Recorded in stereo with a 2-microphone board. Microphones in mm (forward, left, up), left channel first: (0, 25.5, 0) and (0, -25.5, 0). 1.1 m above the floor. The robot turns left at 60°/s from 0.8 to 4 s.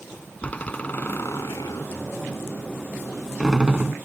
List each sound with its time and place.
0.4 s a door slam: 25° left (ahead or behind); by 4.0 s 35° right (ahead or behind)